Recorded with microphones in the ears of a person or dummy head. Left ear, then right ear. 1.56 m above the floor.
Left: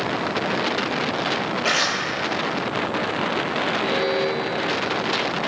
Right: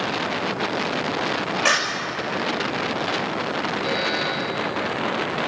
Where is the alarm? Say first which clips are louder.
Even; 25° right (ahead or behind), 6.5 m.